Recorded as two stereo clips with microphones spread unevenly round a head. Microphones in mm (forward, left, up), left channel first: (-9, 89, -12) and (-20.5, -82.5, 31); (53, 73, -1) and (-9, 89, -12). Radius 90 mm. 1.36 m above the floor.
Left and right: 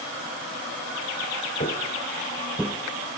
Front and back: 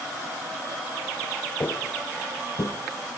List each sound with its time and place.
1.6 s footsteps: 20° left, 2.5 m; by 2.8 s 20° right, 2.5 m